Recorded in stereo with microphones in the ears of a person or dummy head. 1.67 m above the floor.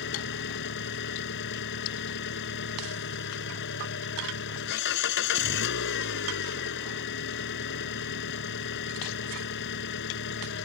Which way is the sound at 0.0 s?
55° left (ahead or behind).